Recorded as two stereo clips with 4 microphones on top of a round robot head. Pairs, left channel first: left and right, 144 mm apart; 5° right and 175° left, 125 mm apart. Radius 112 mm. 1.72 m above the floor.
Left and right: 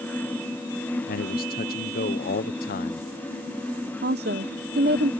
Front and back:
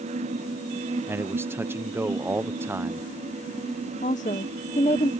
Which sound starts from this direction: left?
A man speaking, at 1.1 s.